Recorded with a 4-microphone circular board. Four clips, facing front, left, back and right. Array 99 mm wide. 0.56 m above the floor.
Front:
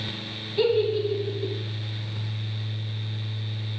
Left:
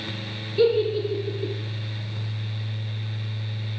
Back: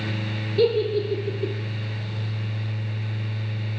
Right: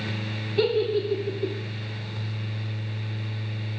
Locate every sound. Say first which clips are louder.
0.6 s a giggle: left 3 dB, back 1 dB; 65° right, 2.5 m